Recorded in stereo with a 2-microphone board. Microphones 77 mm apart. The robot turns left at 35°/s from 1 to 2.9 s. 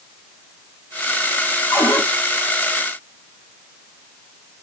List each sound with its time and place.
1.7 s a cupboard door: 40° left (ahead or behind), 2.5 m; by 2.0 s 50° left (ahead or behind), 2.5 m